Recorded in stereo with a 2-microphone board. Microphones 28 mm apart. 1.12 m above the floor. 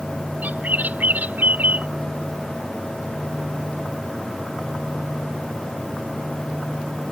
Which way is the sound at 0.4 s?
85° right.